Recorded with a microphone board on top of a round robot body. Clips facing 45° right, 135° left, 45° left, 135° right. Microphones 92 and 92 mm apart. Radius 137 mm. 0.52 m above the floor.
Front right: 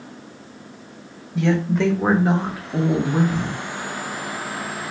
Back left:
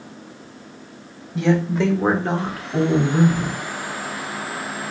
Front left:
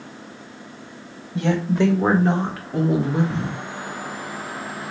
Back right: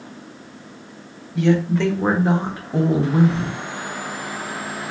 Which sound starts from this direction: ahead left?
A woman speaking, at 1.4 s.